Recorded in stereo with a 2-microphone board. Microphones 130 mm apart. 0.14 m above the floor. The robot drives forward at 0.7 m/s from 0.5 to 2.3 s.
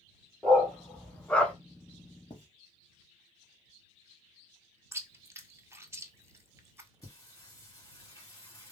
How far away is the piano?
No piano in this recording.